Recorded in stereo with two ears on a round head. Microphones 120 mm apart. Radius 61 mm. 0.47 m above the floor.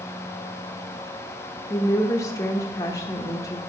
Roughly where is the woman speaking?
Left.